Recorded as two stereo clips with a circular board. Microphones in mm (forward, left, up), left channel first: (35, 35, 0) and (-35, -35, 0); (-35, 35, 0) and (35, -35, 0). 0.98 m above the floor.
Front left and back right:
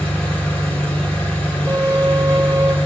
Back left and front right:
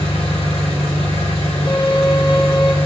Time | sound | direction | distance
0.0 | an engine running | 120° left | 2.5 m
1.7 | a violin | 170° left | 0.7 m